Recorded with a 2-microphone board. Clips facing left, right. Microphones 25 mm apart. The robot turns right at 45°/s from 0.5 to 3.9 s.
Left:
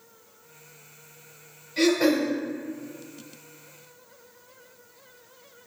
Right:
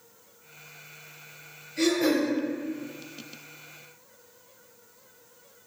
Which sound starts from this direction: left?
Throat clearing, at 1.8 s.